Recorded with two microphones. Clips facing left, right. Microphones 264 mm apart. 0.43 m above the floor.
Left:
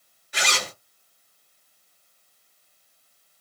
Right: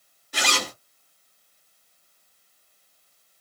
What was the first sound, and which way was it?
A zipper, 45° right (ahead or behind).